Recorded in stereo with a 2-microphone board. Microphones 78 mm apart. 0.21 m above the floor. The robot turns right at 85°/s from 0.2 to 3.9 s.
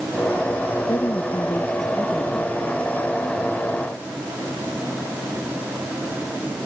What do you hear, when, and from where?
0.9 s a woman speaking: 95° left; by 2.6 s 120° right